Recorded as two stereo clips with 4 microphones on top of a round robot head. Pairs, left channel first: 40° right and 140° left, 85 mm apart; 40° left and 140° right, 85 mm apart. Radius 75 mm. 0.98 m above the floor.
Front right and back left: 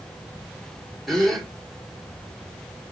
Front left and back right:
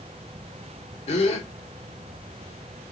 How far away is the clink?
I don't hear a clink.